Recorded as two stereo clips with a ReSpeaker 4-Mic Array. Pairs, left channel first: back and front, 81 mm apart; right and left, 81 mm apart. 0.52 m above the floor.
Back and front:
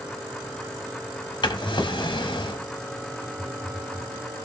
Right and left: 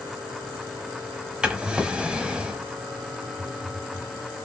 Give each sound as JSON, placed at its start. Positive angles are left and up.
{"t": 1.4, "sound": "a drawer", "azimuth_deg": 170, "distance_m": 0.7}
{"t": 3.4, "sound": "a phone buzzing", "azimuth_deg": 65, "distance_m": 1.2}